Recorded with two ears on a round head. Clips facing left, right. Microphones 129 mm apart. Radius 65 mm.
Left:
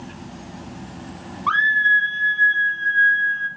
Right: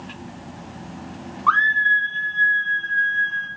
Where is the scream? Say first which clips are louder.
Right 1 dB; 20° left (ahead or behind), 0.5 m; by 3.5 s 50° left (ahead or behind), 2.0 m.